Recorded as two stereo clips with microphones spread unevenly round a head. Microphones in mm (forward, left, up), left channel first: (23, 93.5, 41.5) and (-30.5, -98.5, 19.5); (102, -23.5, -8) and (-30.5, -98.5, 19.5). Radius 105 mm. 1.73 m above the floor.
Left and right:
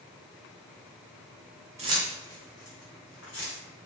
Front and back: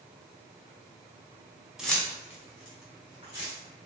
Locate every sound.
1.8 s keys jangling: 100° right, 0.6 m; by 3.5 s 55° left, 1.5 m